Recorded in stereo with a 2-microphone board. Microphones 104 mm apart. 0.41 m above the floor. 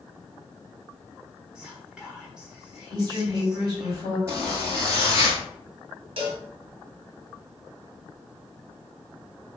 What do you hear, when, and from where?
1.6 s whispering: 10° right (ahead or behind), 1.0 m
2.9 s a woman speaking: 35° right (ahead or behind), 1.8 m
4.3 s a zipper: 25° right (ahead or behind), 1.2 m
6.2 s a cowbell: 65° right (ahead or behind), 0.8 m